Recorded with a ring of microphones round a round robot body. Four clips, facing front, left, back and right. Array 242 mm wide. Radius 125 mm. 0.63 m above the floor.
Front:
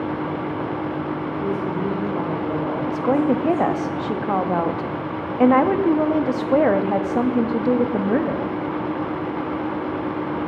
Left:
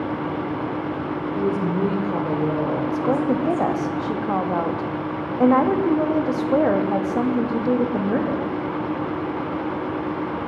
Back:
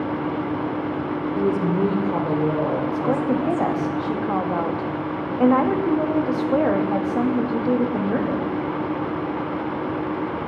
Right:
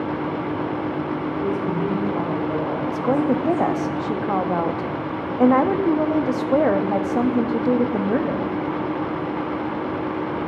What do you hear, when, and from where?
1.4 s a woman speaking: 150° left, 1.9 m
2.9 s a woman speaking: 15° right, 0.7 m